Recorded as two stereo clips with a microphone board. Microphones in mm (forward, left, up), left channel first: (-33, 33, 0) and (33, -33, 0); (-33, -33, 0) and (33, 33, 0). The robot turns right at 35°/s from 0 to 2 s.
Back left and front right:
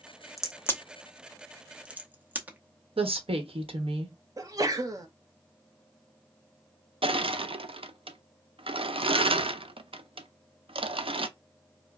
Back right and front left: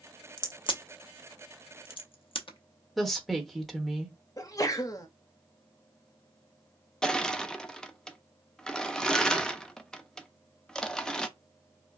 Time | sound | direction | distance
0.4 | a crack | 175° right | 0.7 m
3.0 | a woman speaking | 45° right | 1.1 m
4.4 | a sneeze | 90° right | 0.9 m
7.0 | crushing | 50° right | 0.5 m